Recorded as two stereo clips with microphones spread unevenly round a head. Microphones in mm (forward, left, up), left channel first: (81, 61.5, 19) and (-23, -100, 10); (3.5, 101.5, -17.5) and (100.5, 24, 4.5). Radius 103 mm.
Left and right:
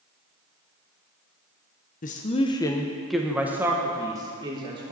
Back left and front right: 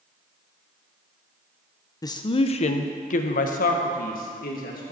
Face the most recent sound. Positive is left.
turn(degrees=170)